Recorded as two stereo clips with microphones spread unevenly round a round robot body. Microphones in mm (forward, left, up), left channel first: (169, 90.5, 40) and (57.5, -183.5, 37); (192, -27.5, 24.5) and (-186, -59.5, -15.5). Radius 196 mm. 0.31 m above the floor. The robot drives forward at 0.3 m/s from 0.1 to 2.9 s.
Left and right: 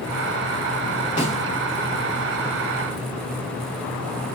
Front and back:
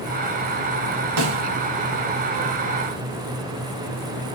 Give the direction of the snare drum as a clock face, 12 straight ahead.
7 o'clock.